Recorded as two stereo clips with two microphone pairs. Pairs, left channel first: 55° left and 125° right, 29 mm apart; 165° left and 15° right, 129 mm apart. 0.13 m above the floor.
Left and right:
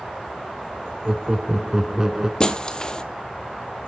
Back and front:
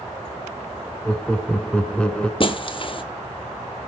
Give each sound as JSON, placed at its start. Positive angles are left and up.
{"t": 1.1, "sound": "laughter", "azimuth_deg": -125, "distance_m": 1.1}
{"t": 2.4, "sound": "breaking glass", "azimuth_deg": 120, "distance_m": 1.1}